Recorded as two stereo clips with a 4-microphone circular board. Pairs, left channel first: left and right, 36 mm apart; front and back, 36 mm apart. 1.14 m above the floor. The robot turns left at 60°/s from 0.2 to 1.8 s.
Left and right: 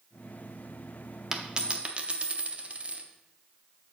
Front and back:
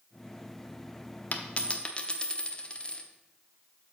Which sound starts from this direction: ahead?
A dropped coin, at 1.3 s.